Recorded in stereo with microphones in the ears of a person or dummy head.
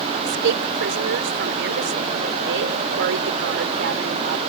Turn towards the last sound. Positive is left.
turn(degrees=-60)  # may be behind; listen again after turning